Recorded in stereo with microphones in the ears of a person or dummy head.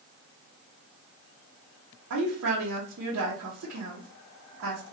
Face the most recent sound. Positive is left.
turn(degrees=-85)